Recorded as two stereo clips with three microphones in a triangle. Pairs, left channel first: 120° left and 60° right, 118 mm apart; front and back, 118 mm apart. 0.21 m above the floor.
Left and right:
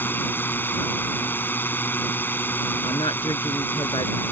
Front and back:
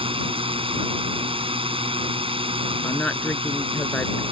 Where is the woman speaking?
80° left.